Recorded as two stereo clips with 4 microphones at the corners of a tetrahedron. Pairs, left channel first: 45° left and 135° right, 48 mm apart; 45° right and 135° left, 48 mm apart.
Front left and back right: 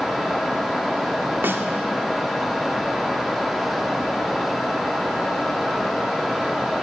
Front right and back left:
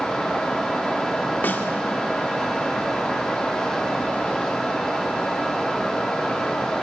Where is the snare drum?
95° right, 2.5 m.